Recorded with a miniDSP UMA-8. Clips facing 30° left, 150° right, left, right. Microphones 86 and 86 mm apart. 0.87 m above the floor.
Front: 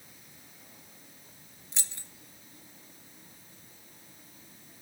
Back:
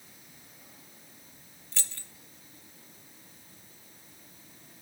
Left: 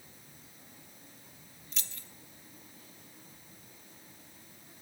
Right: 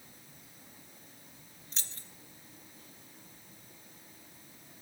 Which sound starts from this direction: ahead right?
Keys jangling, at 1.7 s.